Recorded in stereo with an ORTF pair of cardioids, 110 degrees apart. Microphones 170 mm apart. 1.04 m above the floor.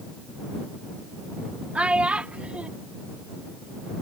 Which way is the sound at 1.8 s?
5° right.